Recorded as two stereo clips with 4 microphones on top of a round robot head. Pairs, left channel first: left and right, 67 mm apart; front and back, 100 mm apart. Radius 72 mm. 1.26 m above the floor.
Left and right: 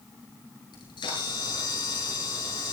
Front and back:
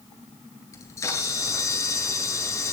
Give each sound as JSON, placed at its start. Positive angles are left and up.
{"t": 0.7, "sound": "a camera shutter", "azimuth_deg": 60, "distance_m": 7.0}